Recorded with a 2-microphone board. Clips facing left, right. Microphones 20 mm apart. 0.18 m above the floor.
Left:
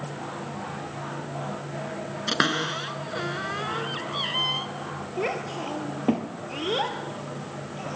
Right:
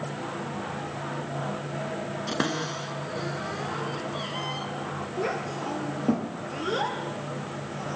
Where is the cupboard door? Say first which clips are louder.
Left 6 dB; 55° left (ahead or behind), 0.8 m.